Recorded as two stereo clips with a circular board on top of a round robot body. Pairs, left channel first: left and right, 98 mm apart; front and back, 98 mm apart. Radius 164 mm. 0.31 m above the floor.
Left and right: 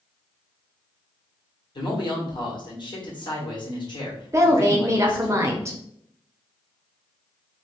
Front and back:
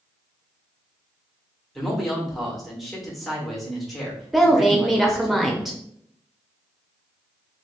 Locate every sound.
1.8 s a man speaking: 90° left, 1.8 m
4.3 s a woman speaking: 95° right, 0.9 m